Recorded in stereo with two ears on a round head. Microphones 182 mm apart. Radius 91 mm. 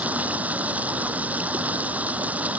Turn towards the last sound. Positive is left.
turn(degrees=-5)  # may be behind; listen again after turning